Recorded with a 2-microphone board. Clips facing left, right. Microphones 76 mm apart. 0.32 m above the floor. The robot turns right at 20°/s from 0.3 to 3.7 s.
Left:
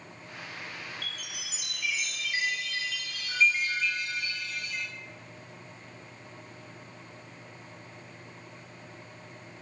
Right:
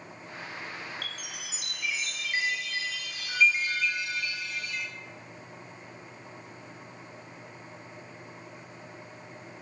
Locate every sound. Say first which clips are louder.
1.0 s a chime: right 1 dB; 60° right, 0.9 m; by 4.9 s 5° right, 0.9 m